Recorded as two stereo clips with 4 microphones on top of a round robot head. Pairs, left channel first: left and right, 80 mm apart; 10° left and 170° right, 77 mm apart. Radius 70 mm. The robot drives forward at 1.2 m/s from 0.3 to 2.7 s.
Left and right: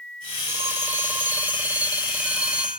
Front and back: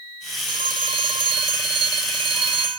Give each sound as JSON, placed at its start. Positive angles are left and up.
{"t": 0.5, "sound": "a phone ringing", "azimuth_deg": -155}